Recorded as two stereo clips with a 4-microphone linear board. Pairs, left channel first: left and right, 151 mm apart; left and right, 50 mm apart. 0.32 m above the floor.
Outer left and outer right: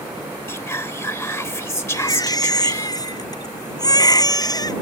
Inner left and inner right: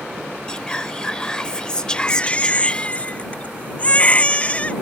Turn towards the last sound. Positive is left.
turn(degrees=25)  # may be behind; listen again after turning